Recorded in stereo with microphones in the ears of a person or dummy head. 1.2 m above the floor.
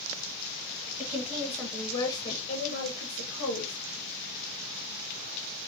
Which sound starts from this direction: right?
A woman speaking, at 1.0 s.